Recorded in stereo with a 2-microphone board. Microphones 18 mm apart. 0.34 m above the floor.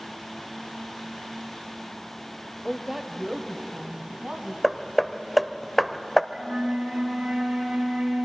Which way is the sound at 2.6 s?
Centre (ahead or behind).